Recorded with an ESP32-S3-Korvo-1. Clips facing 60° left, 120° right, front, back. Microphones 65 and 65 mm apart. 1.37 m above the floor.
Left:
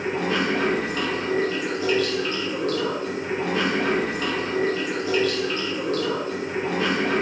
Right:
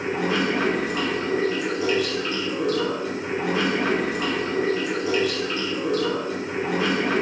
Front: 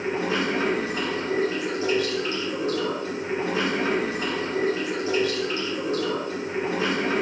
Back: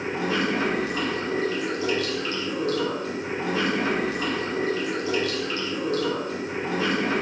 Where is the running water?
45° right, 1.0 m.